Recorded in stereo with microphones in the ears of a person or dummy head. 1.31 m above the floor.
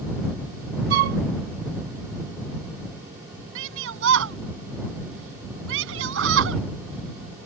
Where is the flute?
60° right (ahead or behind).